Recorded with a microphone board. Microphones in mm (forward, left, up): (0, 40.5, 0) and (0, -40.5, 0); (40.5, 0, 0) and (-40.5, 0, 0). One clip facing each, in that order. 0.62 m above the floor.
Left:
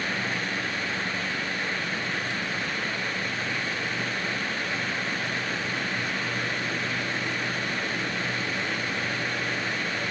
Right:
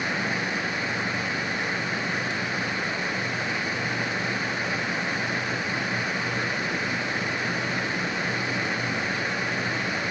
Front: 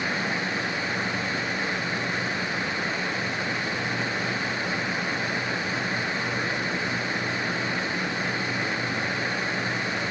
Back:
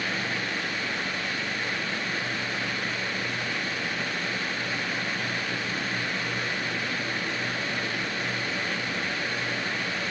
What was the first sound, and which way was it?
Only background noise.